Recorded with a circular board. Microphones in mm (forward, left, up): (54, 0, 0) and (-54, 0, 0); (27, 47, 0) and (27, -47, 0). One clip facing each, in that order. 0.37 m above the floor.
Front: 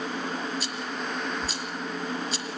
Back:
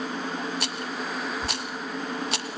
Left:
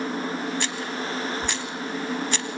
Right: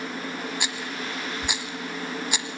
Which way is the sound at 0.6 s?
170° right.